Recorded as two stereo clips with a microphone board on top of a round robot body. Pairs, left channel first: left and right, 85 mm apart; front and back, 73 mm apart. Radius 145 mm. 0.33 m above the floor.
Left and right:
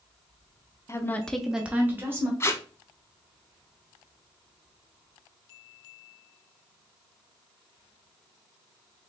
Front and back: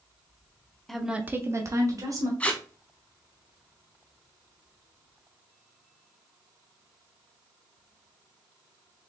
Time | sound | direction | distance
0.9 | a woman speaking | 80° left | 0.9 m
2.4 | tape being pulled | 60° left | 1.2 m